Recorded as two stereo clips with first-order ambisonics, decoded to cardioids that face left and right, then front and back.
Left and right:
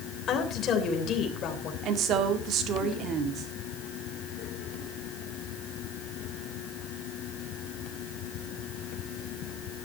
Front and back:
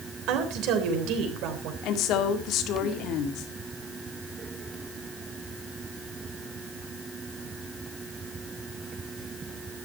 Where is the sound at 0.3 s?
150° left, 3 m.